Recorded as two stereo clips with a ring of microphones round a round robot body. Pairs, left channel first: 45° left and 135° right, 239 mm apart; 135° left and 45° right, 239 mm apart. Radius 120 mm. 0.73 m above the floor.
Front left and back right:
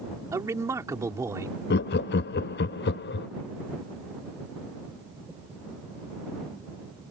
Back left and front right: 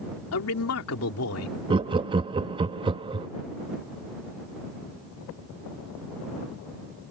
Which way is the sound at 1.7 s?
20° left.